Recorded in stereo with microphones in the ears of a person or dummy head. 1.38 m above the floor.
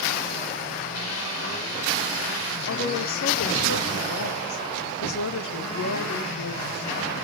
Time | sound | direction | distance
0.9 | a hiss | 90° left | 6 m
2.7 | a woman speaking | 70° left (ahead or behind) | 2.0 m